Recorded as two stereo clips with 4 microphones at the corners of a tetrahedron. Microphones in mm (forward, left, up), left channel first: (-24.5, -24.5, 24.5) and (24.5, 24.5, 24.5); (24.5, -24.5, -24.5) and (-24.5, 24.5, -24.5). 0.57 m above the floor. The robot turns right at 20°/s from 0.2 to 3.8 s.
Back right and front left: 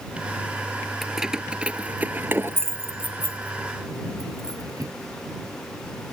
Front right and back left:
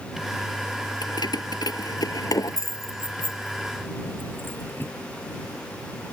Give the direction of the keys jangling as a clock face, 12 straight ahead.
1 o'clock.